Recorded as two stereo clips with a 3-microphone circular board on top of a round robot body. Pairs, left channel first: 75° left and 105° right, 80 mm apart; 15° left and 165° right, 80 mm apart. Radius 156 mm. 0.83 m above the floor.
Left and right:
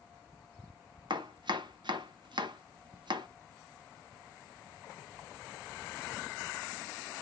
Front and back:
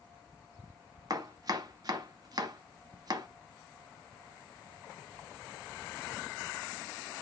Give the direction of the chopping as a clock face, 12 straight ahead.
4 o'clock.